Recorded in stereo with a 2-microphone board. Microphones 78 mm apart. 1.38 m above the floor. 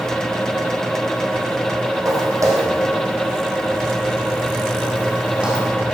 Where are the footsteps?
45° right (ahead or behind), 4.5 m; by 5.7 s 10° right (ahead or behind), 5 m.